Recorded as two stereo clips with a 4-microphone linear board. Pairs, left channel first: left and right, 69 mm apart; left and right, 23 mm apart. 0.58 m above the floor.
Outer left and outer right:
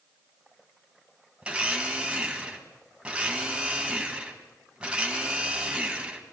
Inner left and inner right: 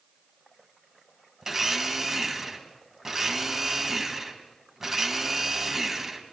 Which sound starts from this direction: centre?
A blender, at 1.4 s.